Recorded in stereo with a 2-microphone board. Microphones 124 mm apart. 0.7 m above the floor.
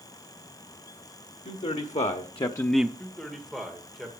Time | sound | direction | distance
1.4 | a man speaking | 70° left (ahead or behind) | 1.6 m
3.0 | a man speaking | centre (ahead or behind) | 1.9 m